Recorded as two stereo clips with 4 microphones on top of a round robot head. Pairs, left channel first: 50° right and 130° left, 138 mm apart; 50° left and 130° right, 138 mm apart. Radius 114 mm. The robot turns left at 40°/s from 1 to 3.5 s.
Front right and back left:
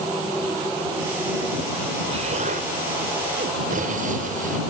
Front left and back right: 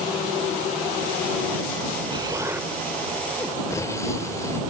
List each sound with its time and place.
2.1 s an explosion: 175° left; by 4.6 s 120° left